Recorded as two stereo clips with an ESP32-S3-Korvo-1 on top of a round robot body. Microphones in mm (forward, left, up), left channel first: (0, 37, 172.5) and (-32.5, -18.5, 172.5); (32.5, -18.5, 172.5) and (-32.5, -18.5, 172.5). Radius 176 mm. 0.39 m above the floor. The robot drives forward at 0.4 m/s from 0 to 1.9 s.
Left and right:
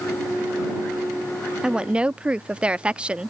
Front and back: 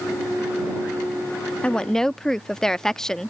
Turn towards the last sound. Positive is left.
turn(degrees=-70)